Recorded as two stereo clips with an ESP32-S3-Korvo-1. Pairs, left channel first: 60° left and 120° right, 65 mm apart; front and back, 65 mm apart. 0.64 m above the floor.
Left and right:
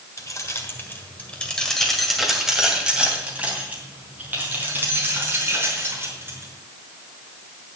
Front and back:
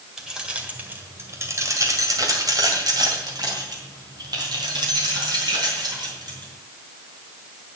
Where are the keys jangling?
95° left, 1.7 m; by 6.5 s 175° right, 5.5 m.